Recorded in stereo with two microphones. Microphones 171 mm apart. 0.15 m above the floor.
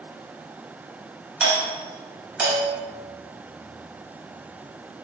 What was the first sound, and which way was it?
A doorbell, 10° right (ahead or behind).